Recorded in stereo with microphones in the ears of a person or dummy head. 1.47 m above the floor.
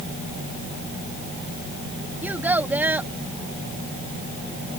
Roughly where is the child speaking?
Centre.